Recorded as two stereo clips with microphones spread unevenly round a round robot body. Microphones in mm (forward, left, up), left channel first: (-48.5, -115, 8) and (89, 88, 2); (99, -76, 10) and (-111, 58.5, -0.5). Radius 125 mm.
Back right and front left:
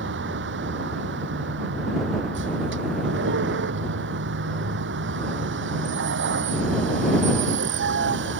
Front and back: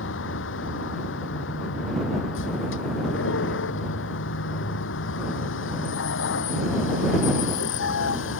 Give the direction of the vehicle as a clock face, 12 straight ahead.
12 o'clock.